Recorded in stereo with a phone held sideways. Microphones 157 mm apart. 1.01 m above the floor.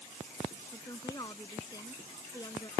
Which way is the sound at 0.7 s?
25° left (ahead or behind).